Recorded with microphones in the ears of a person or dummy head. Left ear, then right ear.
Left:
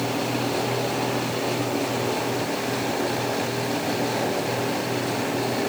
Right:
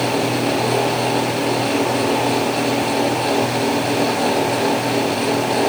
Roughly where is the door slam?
I don't hear a door slam.